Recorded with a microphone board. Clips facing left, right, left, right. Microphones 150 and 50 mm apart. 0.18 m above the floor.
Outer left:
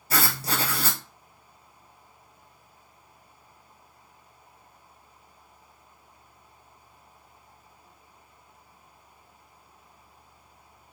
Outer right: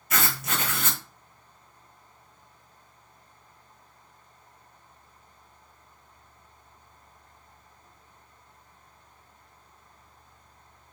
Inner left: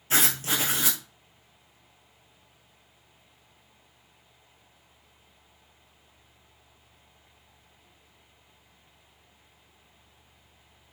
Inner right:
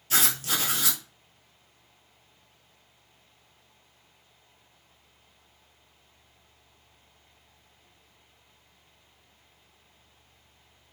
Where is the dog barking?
I don't hear a dog barking.